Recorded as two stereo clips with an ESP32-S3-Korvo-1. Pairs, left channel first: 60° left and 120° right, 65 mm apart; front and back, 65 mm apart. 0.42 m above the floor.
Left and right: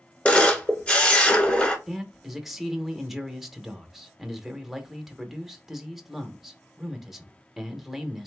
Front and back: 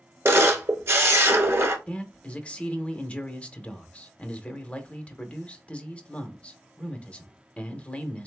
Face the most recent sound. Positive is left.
turn(degrees=-40)